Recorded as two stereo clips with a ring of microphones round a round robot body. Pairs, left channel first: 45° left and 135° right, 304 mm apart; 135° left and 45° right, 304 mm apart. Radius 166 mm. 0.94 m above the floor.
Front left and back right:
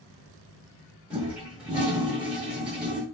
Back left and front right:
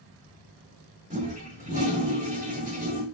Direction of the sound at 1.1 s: 55° right.